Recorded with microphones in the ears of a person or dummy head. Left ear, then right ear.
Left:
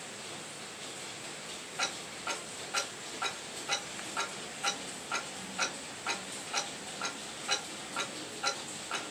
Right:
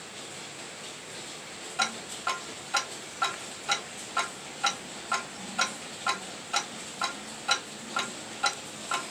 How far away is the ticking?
About 1.3 m.